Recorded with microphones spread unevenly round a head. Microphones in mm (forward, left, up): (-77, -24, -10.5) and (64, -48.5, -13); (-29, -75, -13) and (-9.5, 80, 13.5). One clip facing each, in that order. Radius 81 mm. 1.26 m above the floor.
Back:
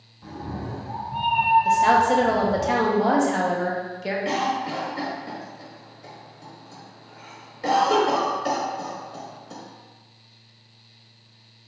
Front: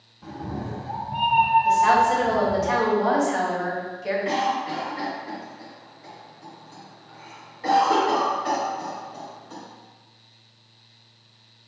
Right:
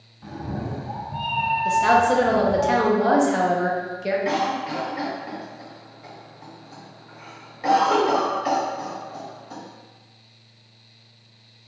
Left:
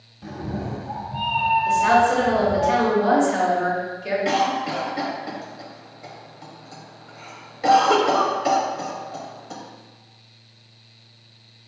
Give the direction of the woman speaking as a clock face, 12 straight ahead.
4 o'clock.